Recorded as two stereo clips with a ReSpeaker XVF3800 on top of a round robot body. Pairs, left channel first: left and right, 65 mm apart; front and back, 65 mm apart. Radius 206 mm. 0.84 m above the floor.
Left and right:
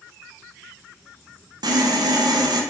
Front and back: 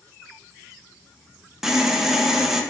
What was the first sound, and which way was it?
Sawing, 95° right.